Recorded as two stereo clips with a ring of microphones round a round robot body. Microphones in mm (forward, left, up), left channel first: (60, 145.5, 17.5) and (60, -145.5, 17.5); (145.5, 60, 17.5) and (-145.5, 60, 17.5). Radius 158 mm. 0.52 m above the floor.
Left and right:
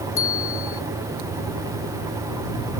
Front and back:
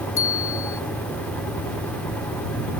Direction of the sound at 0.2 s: 45° left.